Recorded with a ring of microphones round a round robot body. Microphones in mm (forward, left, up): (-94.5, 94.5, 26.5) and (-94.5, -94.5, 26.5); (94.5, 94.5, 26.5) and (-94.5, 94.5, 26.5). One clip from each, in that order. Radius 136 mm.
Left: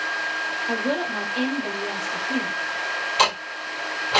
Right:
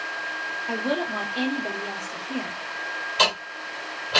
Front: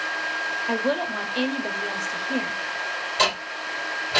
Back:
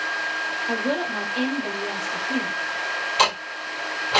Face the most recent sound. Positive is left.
turn(degrees=150)